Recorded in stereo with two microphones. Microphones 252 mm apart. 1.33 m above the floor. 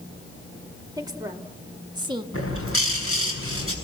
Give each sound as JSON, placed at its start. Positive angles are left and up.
{"t": 1.0, "sound": "a woman speaking", "side_deg": -15, "distance_m": 2.5}
{"t": 2.3, "sound": "a bird", "side_deg": 65, "distance_m": 5.5}